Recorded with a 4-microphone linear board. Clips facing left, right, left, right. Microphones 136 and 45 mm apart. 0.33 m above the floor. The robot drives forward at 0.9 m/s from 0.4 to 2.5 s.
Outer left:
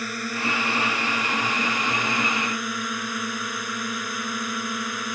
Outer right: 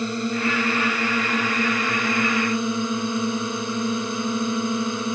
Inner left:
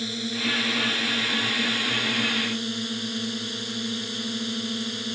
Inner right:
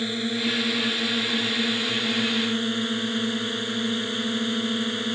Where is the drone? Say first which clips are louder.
Outer right 5 dB, inner right 2 dB; 25° right (ahead or behind).